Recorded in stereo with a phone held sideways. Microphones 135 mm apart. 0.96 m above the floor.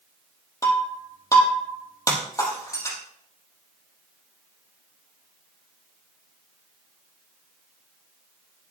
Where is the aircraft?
No aircraft in this recording.